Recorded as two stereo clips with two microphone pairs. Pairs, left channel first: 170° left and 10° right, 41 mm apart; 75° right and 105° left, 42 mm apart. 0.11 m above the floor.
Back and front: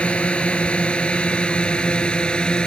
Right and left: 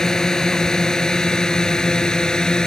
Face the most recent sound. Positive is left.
turn(degrees=-135)